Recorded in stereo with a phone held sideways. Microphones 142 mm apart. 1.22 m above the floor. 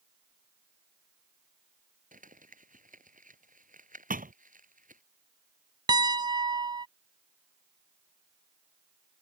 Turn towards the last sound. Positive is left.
turn(degrees=-30)  # may be behind; listen again after turning